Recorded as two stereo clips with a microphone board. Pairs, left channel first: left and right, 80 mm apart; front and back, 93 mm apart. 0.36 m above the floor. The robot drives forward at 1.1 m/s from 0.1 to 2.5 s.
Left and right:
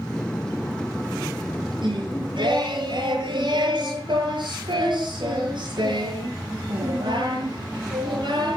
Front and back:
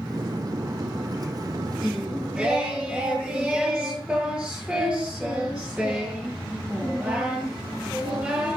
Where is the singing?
95° right, 7 m; by 8.6 s 100° right, 7 m.